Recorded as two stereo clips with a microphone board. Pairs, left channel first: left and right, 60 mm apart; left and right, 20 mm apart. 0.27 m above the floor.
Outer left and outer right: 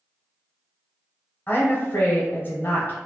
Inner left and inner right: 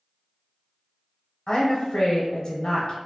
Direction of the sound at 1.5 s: 35° left (ahead or behind).